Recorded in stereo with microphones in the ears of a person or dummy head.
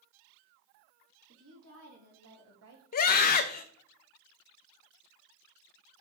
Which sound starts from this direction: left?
A scream, at 2.9 s.